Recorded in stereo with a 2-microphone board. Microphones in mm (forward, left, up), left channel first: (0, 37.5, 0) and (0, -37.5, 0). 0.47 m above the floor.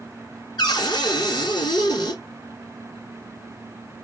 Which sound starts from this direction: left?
A cupboard door, at 0.6 s.